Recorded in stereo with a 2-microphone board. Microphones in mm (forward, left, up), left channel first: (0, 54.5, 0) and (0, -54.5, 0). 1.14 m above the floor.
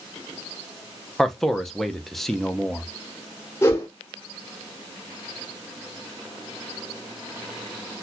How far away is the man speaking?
About 0.6 m.